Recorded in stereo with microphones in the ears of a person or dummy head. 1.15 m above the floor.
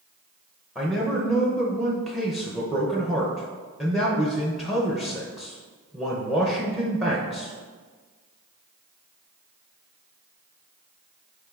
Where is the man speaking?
Centre (ahead or behind), 0.5 m.